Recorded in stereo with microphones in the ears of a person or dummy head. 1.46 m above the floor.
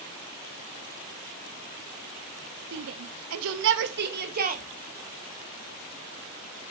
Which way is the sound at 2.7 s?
60° right (ahead or behind).